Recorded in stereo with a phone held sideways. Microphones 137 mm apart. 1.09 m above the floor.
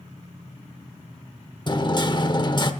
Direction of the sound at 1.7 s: 35° left (ahead or behind).